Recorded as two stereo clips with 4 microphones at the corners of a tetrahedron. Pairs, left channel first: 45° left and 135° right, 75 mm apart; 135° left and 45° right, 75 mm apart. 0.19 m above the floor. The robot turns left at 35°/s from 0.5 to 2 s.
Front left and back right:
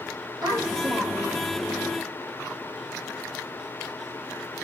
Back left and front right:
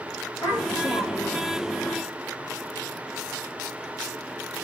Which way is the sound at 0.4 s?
170° right.